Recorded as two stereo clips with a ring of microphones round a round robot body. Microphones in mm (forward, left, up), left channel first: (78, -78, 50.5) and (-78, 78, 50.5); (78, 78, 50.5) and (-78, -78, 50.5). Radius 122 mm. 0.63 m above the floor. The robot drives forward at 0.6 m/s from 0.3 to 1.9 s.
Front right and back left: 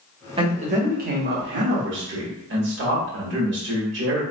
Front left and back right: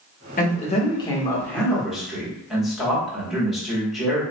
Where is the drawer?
I don't hear a drawer.